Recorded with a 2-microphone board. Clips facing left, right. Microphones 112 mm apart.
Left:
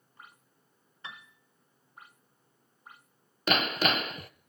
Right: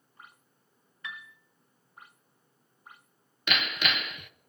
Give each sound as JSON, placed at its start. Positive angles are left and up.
{"t": 1.0, "sound": "a piano", "side_deg": 30, "distance_m": 0.8}
{"t": 3.5, "sound": "hammering", "side_deg": 35, "distance_m": 0.6}